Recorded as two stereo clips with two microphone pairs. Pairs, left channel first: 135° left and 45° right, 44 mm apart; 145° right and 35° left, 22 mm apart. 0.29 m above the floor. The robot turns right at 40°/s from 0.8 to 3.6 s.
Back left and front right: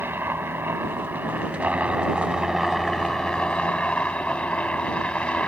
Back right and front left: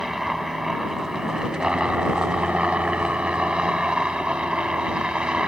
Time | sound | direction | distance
0.0 | a helicopter | 35° right | ?